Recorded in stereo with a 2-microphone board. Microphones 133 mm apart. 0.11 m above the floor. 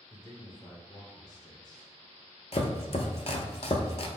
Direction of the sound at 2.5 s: 55° left (ahead or behind).